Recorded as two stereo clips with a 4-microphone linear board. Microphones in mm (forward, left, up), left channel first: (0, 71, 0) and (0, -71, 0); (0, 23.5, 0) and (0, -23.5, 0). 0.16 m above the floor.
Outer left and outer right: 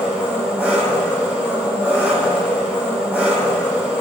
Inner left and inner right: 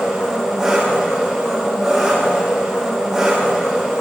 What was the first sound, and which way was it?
An engine running, 10° right (ahead or behind).